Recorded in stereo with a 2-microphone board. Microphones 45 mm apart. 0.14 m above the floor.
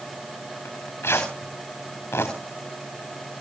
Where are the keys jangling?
No keys jangling in this recording.